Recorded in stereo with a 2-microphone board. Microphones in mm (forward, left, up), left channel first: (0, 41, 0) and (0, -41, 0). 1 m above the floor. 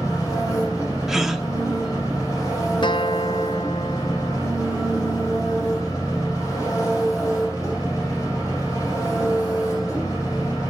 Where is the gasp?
5° right (ahead or behind), 0.9 m.